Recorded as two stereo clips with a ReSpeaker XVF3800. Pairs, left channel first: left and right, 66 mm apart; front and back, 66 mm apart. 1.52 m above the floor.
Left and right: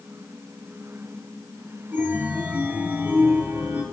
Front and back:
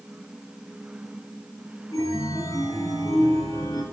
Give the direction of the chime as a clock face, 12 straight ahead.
1 o'clock.